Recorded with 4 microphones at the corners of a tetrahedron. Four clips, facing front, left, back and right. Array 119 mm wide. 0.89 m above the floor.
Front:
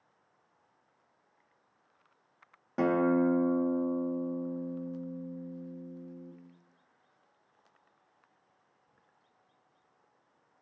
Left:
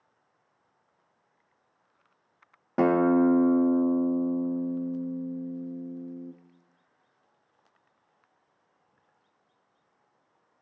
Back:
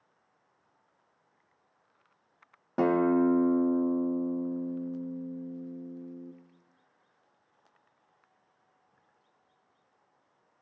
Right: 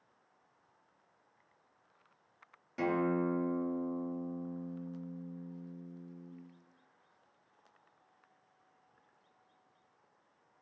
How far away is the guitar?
About 1.3 m.